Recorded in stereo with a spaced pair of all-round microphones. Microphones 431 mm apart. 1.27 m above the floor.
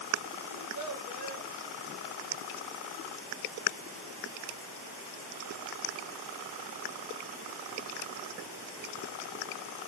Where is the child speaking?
40° left (ahead or behind), 1.5 m.